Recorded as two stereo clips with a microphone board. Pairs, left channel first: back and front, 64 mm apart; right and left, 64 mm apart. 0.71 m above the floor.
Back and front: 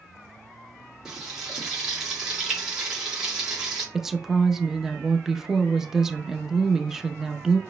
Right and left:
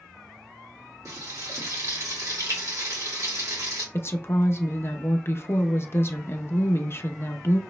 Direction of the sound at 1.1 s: 80° left.